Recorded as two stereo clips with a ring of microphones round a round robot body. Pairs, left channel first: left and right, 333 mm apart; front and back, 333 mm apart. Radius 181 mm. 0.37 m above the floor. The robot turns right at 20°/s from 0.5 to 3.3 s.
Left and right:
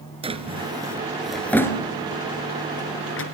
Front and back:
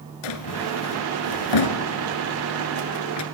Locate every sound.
0.2 s a drawer: 15° right, 1.9 m; by 3.2 s 40° left, 1.9 m